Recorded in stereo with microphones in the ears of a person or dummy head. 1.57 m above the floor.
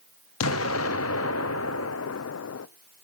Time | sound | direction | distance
0.4 | an explosion | 80° left | 0.7 m